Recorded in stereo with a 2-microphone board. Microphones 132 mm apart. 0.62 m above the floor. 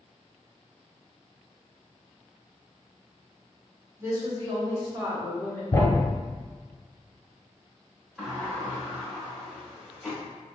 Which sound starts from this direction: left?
A thud, at 5.7 s.